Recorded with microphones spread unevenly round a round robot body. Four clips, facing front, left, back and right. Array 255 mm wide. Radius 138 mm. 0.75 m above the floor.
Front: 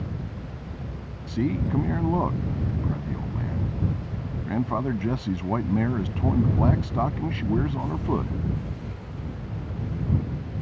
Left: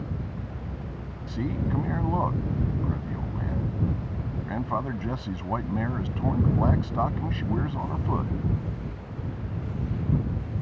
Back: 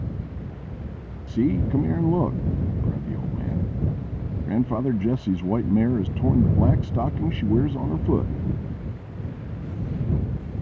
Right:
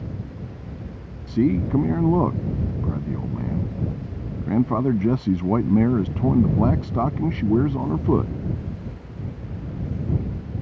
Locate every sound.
1.3 s a man speaking: 115° right